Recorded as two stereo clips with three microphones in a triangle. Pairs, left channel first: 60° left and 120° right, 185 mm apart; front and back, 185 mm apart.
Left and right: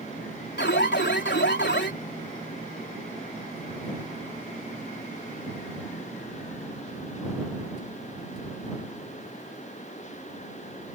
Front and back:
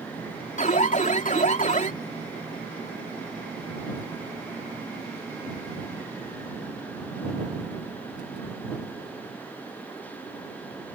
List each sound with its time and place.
0.6 s an alarm: 45° left